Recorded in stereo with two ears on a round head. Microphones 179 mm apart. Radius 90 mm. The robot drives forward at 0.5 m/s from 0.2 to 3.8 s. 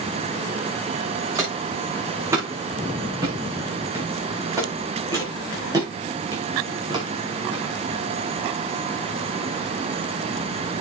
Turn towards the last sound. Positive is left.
turn(degrees=-25)  # may be behind; listen again after turning